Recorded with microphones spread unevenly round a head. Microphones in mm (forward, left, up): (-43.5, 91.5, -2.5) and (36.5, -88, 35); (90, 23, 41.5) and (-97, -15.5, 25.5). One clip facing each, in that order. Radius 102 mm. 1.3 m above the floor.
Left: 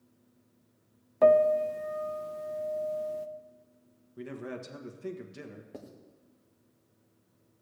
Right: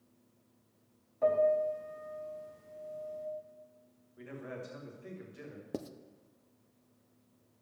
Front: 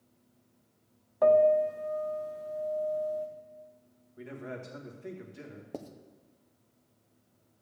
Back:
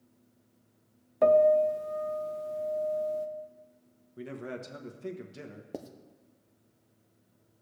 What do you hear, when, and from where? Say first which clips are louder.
1.2 s a piano: left 6 dB, back 1 dB; 130° left, 0.6 m
4.2 s a man speaking: left 5 dB, back 2 dB; 150° left, 1.1 m
5.7 s writing: right 9 dB, back 1 dB; 90° right, 0.5 m